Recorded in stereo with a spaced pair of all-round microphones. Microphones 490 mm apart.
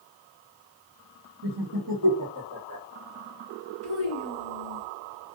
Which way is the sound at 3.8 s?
55° right (ahead or behind).